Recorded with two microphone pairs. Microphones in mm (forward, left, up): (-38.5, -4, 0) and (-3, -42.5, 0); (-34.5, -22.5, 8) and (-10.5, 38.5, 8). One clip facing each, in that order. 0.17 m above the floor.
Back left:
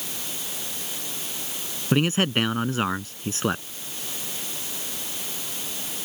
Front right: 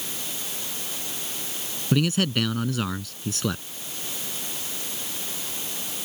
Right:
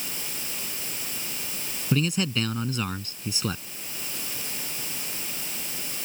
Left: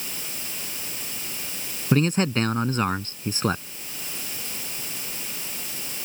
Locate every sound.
1.9 s a man speaking: 90° left